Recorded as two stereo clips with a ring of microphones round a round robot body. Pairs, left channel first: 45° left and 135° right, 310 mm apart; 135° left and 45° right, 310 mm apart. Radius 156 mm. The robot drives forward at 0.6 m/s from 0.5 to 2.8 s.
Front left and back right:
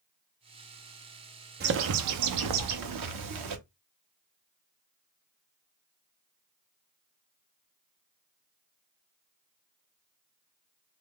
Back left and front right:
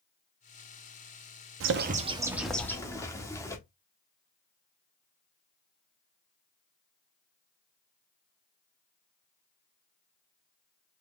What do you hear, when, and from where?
1.6 s a bird: 80° right, 0.6 m; by 3.6 s 145° right, 0.9 m